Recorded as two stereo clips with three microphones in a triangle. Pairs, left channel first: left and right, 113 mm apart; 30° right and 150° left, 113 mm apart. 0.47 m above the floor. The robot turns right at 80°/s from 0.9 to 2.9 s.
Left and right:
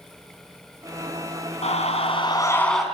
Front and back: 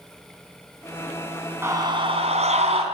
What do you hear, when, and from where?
1.6 s a scream: 85° left, 5 m; by 2.8 s straight behind, 5 m